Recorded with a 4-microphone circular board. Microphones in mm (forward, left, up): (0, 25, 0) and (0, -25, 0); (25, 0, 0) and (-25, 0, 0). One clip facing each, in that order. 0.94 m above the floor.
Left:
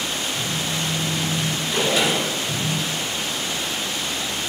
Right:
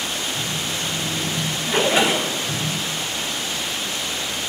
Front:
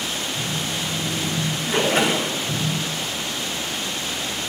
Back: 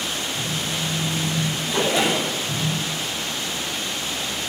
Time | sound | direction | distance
0.3 | a phone buzzing | 60° right | 4.5 m
1.7 | a splash | 40° right | 3 m